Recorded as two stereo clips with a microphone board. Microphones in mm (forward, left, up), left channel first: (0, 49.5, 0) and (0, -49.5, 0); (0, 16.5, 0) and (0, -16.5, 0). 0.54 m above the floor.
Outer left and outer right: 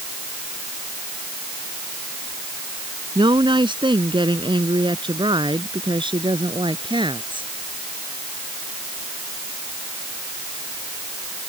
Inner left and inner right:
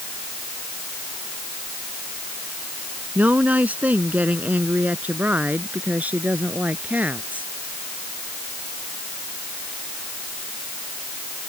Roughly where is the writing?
No writing in this recording.